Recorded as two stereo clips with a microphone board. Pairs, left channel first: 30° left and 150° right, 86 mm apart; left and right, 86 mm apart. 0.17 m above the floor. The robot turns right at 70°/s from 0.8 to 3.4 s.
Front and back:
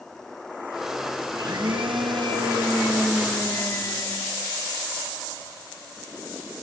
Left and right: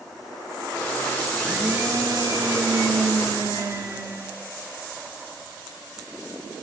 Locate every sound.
1.3 s a blender: 170° left, 3 m; by 4.4 s 45° right, 3 m